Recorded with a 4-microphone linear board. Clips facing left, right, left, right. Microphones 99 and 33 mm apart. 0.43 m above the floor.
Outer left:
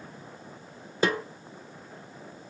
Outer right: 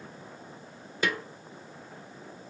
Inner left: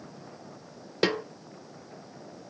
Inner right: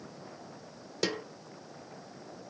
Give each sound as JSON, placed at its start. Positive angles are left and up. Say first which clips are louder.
{"t": 1.0, "sound": "a snare drum", "louder": "outer left 5 dB, inner left 6 dB", "side_deg": 30, "distance_m": 1.0}